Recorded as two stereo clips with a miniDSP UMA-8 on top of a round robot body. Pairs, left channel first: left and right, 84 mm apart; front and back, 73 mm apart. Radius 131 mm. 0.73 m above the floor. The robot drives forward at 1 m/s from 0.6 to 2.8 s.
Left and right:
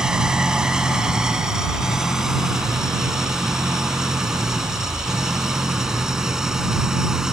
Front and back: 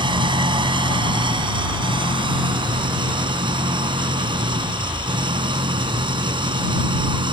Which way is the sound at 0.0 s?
170° right.